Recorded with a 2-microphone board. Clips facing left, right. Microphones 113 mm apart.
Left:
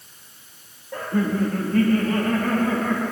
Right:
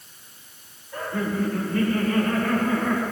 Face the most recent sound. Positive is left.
turn(degrees=65)  # may be behind; listen again after turning